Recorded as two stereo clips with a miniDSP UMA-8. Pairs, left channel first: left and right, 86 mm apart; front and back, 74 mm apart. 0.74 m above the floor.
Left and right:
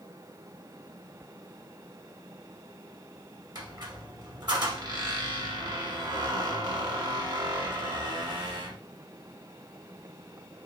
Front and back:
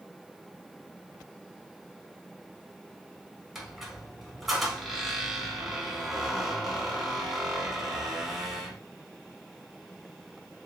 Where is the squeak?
95° right, 0.9 m.